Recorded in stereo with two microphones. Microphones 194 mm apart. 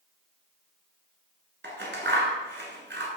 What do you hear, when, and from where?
1.6 s scissors: 65° right (ahead or behind), 1.0 m